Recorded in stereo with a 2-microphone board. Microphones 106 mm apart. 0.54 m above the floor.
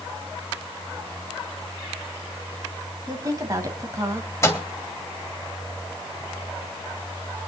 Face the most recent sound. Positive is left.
turn(degrees=25)  # may be behind; listen again after turning